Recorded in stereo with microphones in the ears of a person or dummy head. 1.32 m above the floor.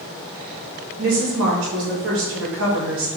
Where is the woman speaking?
75° right (ahead or behind), 5 m.